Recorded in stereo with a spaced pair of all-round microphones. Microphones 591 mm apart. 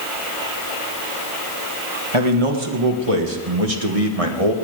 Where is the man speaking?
55° right (ahead or behind), 2 m; by 4.5 s 75° right (ahead or behind), 1.7 m.